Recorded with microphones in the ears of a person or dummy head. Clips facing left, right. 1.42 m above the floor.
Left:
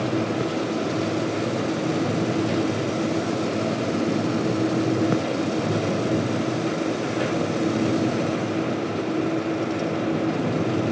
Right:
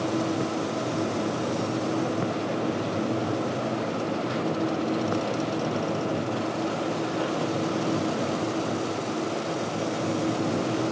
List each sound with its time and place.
Only background noise.